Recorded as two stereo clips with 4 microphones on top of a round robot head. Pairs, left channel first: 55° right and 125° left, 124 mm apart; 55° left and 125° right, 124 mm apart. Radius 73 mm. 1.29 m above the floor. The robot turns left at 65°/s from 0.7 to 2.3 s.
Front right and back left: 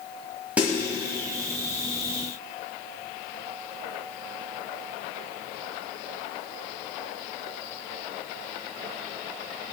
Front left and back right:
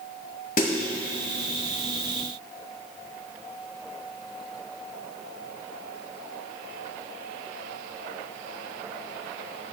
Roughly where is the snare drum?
Ahead left.